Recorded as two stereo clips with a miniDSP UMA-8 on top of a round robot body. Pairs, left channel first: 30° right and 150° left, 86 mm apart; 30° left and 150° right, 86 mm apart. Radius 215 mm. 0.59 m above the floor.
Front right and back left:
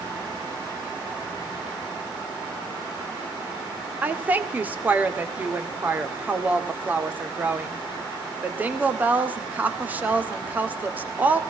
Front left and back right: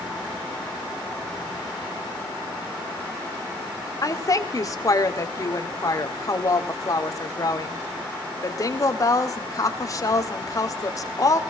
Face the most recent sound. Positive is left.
turn(degrees=80)